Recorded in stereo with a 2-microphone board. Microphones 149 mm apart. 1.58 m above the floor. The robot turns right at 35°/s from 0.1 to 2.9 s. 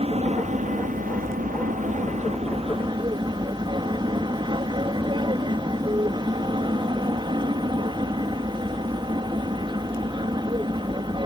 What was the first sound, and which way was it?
An aircraft, 130° right.